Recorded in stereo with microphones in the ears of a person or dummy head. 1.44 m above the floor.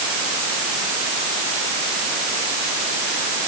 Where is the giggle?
I don't hear a giggle.